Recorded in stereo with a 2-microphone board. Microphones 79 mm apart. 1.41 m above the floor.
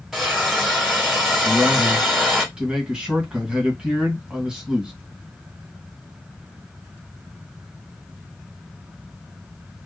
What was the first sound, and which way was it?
A hiss, 5° right (ahead or behind).